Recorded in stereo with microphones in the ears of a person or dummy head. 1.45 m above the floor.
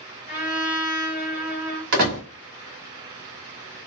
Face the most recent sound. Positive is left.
turn(degrees=-60)  # may be behind; listen again after turning